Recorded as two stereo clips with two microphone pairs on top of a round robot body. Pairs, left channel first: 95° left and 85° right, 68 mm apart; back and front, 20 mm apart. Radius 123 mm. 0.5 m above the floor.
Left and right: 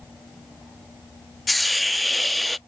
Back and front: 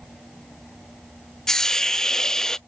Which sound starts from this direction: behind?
A hiss, at 1.5 s.